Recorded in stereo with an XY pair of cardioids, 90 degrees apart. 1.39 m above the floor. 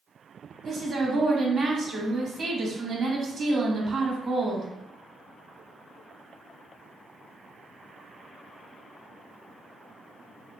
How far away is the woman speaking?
About 1.0 m.